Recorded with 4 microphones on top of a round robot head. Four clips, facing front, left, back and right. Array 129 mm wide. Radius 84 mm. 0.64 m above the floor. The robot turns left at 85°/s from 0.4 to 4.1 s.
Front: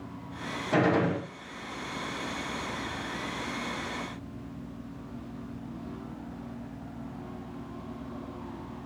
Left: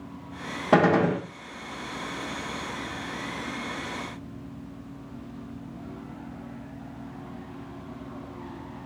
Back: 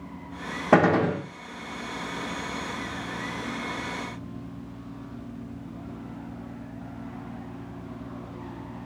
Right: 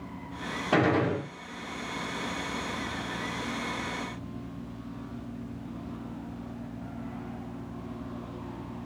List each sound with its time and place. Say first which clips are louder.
0.7 s a gunshot: left 5 dB, back 5 dB; 155° left, 0.5 m; by 1.2 s 115° left, 0.5 m